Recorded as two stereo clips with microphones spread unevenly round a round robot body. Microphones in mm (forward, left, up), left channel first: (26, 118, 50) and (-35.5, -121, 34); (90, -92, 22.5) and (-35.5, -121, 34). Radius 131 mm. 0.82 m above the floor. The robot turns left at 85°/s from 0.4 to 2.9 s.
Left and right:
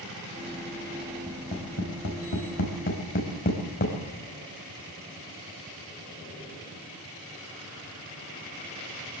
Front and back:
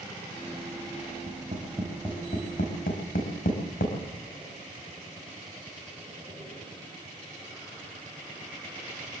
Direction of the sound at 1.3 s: 160° left.